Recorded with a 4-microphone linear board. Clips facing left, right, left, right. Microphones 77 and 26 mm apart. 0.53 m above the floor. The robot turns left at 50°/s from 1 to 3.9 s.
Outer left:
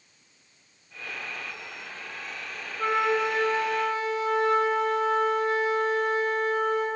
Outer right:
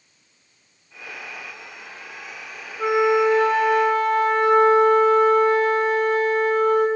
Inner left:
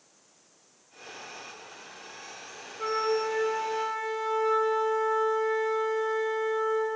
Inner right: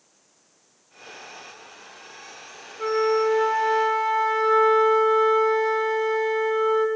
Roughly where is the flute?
Ahead.